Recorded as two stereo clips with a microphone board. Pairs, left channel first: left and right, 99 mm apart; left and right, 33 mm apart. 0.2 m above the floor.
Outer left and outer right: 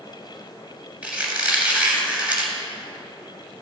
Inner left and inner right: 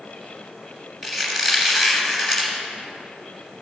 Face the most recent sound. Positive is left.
turn(degrees=-15)  # may be behind; listen again after turning